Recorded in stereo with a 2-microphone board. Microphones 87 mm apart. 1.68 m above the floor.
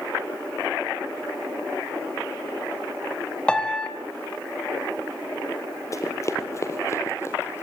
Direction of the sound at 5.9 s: 35° left (ahead or behind).